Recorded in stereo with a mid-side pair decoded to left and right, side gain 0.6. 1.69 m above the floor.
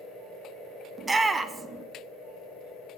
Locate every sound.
1.0 s a shout: 20° right, 1.0 m